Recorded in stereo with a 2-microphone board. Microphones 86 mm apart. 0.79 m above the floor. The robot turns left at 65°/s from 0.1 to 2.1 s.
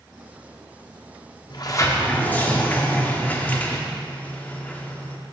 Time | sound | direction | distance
1.5 | a sliding door | 60° left | 0.5 m